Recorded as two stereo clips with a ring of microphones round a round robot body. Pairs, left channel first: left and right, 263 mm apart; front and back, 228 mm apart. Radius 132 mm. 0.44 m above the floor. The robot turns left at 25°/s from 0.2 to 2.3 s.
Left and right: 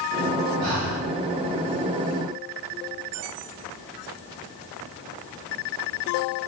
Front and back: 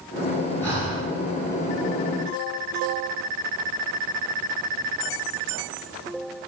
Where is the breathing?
80° right, 2.5 m; by 1.1 s 90° right, 2.5 m.